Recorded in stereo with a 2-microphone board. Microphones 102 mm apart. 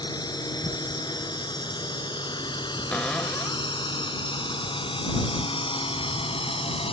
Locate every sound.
0.0 s a drone: 40° left (ahead or behind); by 6.9 s 65° left (ahead or behind)
2.9 s a cupboard door: 10° left (ahead or behind)